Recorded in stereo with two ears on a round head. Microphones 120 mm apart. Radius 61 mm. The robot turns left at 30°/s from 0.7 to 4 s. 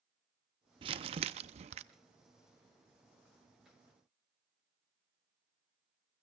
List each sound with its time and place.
0.8 s crumpling: 55° right, 0.6 m; by 1.8 s 85° right, 0.6 m